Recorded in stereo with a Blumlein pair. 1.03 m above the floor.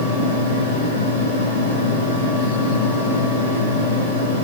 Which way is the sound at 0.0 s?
70° left.